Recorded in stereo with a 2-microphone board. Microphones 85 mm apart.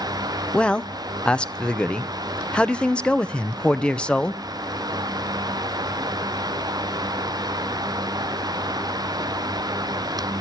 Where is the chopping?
No chopping in this recording.